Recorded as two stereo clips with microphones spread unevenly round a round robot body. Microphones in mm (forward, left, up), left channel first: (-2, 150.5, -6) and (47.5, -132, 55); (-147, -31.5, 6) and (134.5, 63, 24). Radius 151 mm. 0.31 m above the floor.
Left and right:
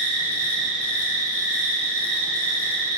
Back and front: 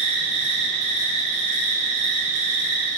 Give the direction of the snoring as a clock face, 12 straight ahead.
No snoring in this recording.